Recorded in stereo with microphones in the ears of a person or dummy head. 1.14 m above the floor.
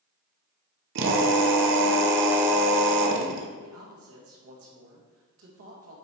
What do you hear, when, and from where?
0.9 s a drill: 65° right (ahead or behind), 1.1 m
3.6 s a man speaking: 70° right (ahead or behind), 1.6 m